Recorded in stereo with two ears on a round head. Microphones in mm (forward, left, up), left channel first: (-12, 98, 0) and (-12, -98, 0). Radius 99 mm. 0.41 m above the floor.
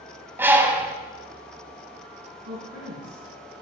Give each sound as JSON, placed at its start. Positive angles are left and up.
{"t": 0.4, "sound": "a bird", "side_deg": -10, "distance_m": 0.9}
{"t": 2.5, "sound": "a woman speaking", "side_deg": -50, "distance_m": 4.5}